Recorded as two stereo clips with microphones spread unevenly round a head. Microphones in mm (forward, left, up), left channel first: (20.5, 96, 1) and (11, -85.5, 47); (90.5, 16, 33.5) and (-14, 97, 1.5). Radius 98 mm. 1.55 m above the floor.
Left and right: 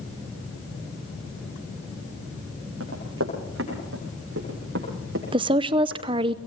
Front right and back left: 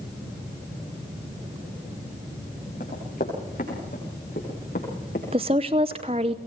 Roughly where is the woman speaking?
Behind right.